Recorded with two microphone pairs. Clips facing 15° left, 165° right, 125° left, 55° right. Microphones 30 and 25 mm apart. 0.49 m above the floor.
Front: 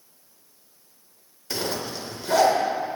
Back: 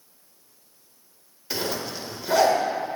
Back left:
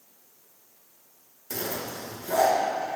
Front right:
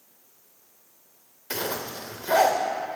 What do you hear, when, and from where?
1.5 s a zipper: 80° right, 1.0 m